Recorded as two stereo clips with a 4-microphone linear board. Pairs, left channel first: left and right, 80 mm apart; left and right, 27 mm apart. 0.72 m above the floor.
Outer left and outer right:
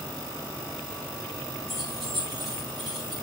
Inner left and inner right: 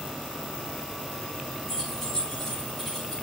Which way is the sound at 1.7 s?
Centre (ahead or behind).